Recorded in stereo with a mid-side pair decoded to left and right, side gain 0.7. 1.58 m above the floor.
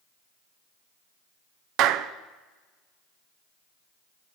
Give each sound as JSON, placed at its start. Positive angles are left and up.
{"t": 1.8, "sound": "a clap", "azimuth_deg": -60, "distance_m": 0.6}